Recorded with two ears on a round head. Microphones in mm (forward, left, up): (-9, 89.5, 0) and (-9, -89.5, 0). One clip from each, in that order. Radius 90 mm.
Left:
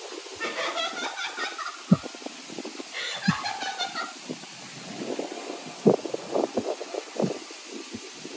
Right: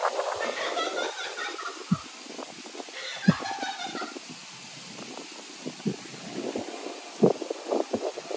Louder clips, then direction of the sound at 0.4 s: Even; centre (ahead or behind).